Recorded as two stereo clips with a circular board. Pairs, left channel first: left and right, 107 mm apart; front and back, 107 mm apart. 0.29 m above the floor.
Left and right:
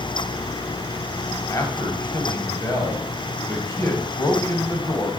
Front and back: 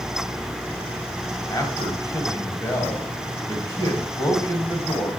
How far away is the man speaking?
About 2.0 m.